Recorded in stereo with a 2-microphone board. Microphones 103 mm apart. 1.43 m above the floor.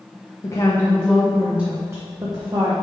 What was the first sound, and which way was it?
A woman speaking, 30° left (ahead or behind).